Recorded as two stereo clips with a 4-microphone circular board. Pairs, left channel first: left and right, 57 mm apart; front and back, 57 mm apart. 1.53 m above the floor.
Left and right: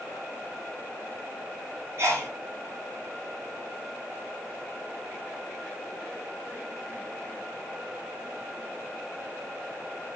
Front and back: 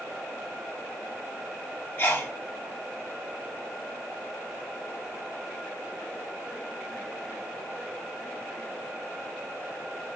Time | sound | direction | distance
2.0 | a sneeze | 50° right | 1.5 m